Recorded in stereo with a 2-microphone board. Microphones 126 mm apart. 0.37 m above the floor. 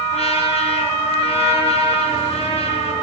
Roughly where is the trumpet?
Left.